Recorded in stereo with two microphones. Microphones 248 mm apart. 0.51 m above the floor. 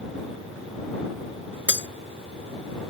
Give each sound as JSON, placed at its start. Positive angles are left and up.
{"t": 1.7, "sound": "breaking glass", "side_deg": 45}